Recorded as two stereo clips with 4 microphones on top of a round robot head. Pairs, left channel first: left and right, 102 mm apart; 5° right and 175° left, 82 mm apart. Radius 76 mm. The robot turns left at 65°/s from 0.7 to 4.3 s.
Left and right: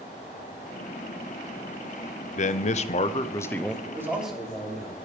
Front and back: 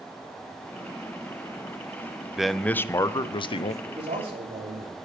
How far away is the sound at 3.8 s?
About 3.5 m.